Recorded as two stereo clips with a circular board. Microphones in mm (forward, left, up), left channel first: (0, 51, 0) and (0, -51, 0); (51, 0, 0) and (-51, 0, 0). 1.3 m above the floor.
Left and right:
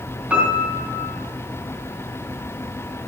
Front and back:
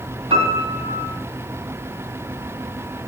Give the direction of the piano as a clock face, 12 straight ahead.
6 o'clock.